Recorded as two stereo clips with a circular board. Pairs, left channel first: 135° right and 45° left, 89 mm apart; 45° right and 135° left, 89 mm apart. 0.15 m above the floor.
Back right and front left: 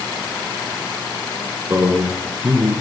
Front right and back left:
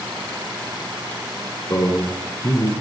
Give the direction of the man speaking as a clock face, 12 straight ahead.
12 o'clock.